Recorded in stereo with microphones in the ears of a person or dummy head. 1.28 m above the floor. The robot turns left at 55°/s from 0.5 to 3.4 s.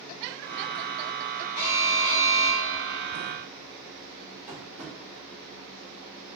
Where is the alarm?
100° left, 1.5 m; by 3.1 s 15° left, 1.5 m.